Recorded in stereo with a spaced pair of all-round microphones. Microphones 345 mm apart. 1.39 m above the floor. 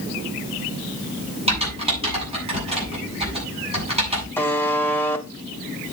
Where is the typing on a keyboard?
15° right (ahead or behind), 7.5 m.